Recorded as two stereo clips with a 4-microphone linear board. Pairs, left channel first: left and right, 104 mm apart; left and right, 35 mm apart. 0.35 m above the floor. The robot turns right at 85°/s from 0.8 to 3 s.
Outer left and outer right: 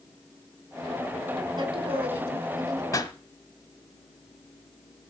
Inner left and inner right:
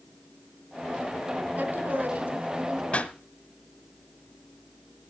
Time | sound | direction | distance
1.6 | a woman speaking | 135° right | 3 m
2.9 | a pop | 30° left (ahead or behind) | 1.0 m